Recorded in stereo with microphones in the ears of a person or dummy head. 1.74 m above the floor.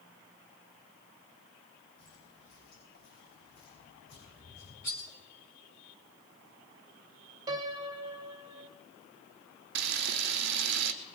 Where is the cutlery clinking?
15° left (ahead or behind), 0.9 m.